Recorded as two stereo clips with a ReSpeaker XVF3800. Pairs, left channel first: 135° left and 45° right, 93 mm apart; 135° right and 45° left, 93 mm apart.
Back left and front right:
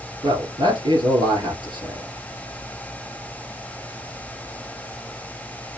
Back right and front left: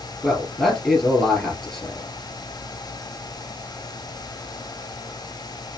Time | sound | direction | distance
0.2 | a man speaking | 40° right | 2 m